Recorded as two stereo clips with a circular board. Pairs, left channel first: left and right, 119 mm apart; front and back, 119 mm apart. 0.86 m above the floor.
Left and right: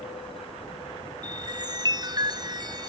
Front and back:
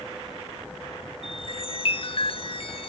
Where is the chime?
35° right.